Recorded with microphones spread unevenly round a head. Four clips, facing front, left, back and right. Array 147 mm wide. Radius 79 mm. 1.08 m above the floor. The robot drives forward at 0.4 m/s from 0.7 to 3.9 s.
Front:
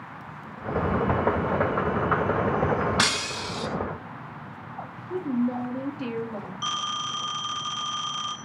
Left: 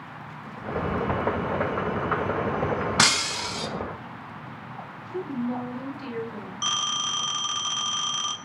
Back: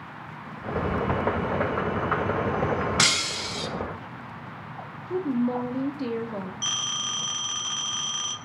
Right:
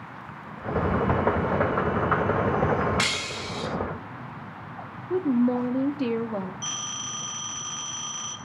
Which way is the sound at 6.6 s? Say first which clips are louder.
Left 7 dB, front 5 dB; 95° left.